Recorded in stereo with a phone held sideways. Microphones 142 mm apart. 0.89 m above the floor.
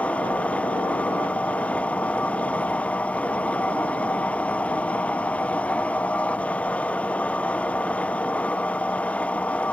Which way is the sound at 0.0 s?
10° left (ahead or behind).